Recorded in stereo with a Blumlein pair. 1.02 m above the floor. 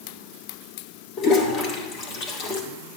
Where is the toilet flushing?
30° left, 1.3 m.